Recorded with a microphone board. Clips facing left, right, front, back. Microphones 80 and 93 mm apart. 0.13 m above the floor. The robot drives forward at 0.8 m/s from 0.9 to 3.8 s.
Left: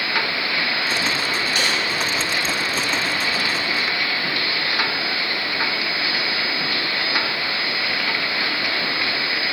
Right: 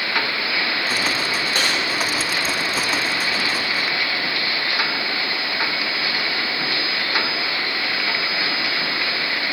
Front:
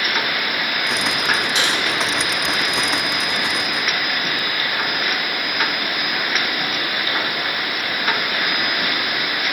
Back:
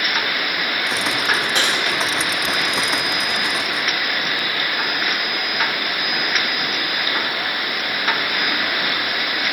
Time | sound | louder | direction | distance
1.6 | typing on a keyboard | right 1 dB, even | 140° right | 3 m